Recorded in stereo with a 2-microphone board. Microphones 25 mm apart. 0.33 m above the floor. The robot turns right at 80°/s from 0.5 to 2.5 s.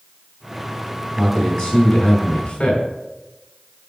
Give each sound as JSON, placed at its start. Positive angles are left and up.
{"t": 1.2, "sound": "a man speaking", "azimuth_deg": 5, "distance_m": 3.0}